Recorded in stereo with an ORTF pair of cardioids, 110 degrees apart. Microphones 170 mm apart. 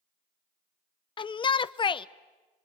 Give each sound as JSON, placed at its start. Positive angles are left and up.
{"t": 1.2, "sound": "a shout", "azimuth_deg": 30, "distance_m": 0.8}